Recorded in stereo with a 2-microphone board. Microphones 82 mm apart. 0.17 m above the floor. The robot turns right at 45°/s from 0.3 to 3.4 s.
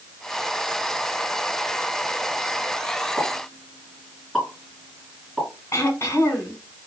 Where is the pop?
10° left (ahead or behind), 2.5 m; by 5.5 s 5° left (ahead or behind), 2.5 m.